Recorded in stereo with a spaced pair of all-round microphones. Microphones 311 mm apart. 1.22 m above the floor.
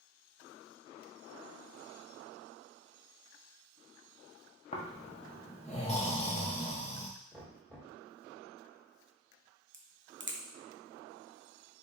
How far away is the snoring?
About 0.8 m.